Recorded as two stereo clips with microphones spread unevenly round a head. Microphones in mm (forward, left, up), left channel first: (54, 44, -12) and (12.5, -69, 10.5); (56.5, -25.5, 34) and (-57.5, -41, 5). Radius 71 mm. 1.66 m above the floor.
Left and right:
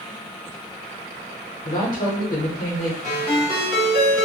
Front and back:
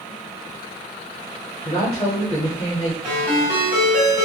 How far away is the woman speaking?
About 0.7 m.